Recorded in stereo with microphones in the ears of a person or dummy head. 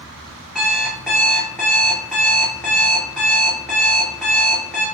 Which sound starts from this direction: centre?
An alarm clock, at 0.6 s.